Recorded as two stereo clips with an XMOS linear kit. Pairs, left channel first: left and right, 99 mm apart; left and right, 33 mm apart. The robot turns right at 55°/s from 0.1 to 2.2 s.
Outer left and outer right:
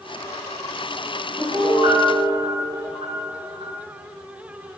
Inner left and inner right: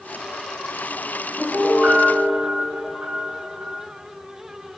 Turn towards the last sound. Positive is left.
turn(degrees=-60)